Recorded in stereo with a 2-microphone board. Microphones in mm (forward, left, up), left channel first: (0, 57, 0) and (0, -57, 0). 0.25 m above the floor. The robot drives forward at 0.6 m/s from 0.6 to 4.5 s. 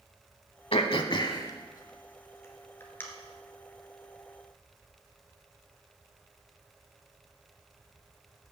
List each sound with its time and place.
0.7 s throat clearing: 55° left (ahead or behind), 0.6 m; by 3.0 s 20° left (ahead or behind), 1.6 m